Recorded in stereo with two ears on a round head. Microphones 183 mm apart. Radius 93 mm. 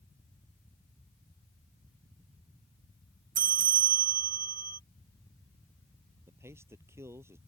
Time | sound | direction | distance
3.4 | a bell | 40° right (ahead or behind) | ?
6.3 | a man speaking | 15° right (ahead or behind) | ?